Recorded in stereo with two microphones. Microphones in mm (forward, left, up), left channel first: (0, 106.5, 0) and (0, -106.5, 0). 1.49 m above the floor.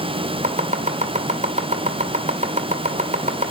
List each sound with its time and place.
0.4 s chopping: 35° right (ahead or behind), 2 m